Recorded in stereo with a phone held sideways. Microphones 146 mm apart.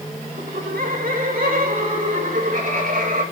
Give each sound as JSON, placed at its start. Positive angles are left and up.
{"t": 0.4, "sound": "laughter", "side_deg": -80, "distance_m": 2.5}